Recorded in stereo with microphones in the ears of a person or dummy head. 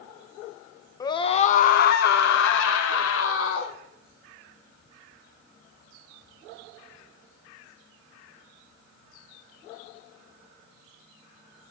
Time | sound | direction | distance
1.0 | a scream | 20° left (ahead or behind) | 1.0 m